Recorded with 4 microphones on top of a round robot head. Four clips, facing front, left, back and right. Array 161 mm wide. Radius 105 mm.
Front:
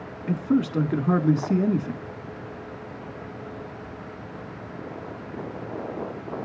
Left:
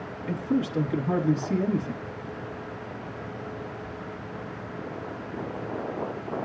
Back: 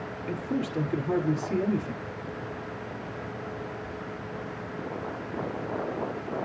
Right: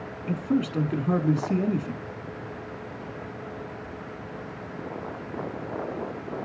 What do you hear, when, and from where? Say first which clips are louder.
0.3 s a man speaking: right 1 dB, front 8 dB; 25° right, 1.8 m